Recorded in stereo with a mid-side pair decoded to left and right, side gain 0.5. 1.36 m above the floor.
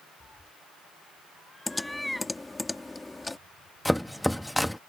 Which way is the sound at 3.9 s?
5° left.